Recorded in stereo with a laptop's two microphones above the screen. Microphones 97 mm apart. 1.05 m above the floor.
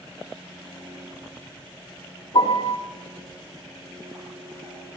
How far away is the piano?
About 2.5 m.